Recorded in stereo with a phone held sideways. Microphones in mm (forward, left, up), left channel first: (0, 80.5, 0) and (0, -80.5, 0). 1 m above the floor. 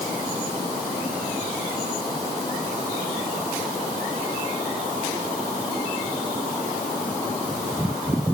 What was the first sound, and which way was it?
Only background noise.